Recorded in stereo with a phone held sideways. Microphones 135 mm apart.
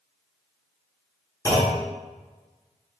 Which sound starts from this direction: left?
A clunk, at 1.4 s.